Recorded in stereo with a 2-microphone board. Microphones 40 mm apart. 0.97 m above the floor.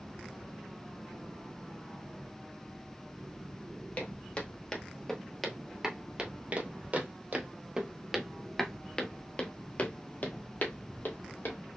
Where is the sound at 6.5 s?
45° right (ahead or behind), 1.4 m; by 11.6 s 60° left (ahead or behind), 1.8 m.